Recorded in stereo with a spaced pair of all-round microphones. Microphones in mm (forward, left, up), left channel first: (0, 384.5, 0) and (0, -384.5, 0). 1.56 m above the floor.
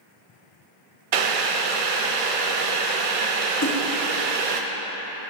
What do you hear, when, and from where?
1.1 s boiling: 50° right (ahead or behind), 0.5 m
3.6 s a splash: 25° left (ahead or behind), 0.7 m